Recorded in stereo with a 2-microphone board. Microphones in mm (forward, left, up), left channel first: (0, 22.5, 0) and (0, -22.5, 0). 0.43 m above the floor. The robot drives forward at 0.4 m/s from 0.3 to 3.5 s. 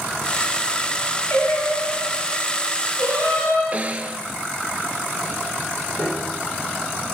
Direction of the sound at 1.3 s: 85° left.